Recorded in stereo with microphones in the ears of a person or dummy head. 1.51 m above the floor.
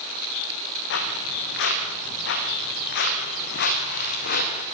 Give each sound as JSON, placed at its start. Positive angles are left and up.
{"t": 0.9, "sound": "footsteps", "side_deg": 70, "distance_m": 6.5}